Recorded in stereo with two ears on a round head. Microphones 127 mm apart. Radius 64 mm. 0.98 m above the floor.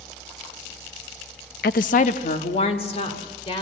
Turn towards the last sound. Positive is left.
turn(degrees=40)  # may be behind; listen again after turning